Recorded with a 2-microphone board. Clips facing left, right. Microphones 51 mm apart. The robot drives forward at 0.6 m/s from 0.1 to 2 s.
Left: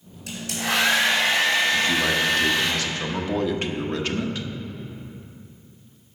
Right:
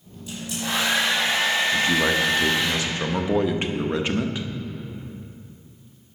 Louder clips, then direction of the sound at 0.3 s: Left 2 dB; 75° left (ahead or behind).